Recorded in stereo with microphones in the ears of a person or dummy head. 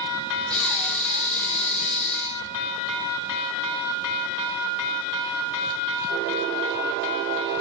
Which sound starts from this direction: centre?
Breathing, at 0.5 s.